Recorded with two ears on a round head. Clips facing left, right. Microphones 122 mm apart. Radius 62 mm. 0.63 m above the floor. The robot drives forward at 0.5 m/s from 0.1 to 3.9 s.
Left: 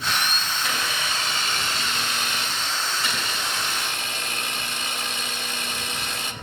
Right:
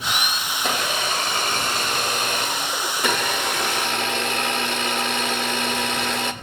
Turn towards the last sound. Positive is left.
turn(degrees=-50)  # may be behind; listen again after turning